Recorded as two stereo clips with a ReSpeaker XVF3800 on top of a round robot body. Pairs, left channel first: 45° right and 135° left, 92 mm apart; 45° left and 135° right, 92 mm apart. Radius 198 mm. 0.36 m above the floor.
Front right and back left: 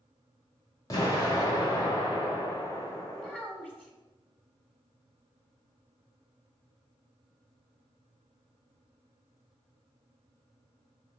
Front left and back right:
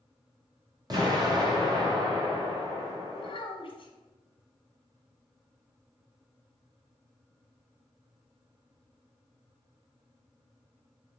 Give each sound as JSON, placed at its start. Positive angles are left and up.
{"t": 0.9, "sound": "an explosion", "azimuth_deg": -95, "distance_m": 2.0}
{"t": 3.1, "sound": "a child speaking", "azimuth_deg": 35, "distance_m": 1.6}